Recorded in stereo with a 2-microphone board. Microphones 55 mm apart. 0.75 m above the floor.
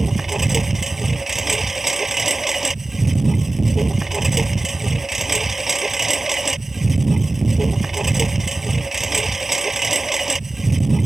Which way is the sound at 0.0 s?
5° right (ahead or behind).